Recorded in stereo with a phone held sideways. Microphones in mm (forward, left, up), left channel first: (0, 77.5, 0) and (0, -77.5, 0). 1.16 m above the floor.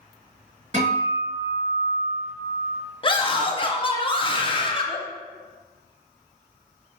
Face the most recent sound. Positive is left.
turn(degrees=35)  # may be behind; listen again after turning